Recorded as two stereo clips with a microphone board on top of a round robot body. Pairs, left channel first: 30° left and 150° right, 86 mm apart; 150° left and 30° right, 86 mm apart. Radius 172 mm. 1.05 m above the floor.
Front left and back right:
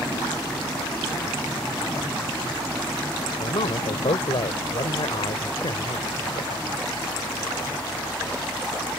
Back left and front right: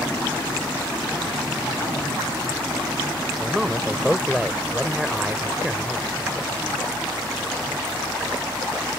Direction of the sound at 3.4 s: 55° left.